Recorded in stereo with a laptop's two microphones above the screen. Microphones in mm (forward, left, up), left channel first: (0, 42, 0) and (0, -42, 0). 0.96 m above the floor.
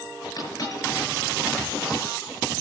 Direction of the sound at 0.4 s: 45° left (ahead or behind).